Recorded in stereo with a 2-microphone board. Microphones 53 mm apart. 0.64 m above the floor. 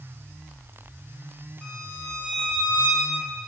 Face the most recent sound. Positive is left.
turn(degrees=20)  # may be behind; listen again after turning